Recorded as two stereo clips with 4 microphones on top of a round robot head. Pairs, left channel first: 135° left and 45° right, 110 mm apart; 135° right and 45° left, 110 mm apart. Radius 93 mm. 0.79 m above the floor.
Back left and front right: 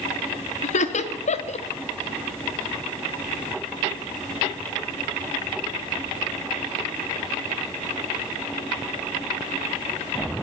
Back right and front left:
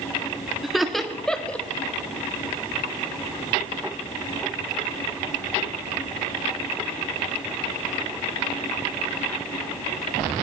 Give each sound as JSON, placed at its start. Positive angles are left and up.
{"t": 0.6, "sound": "laughter", "azimuth_deg": 130, "distance_m": 1.4}